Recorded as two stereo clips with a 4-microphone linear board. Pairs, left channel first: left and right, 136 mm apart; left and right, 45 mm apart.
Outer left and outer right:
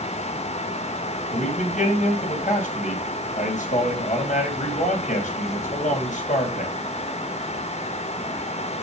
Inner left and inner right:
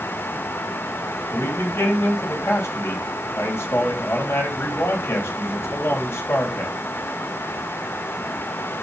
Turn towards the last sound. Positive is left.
turn(degrees=65)  # may be behind; listen again after turning